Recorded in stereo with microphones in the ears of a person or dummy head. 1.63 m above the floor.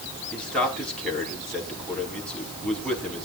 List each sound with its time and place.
0.3 s a man speaking: 5° left (ahead or behind), 4.5 m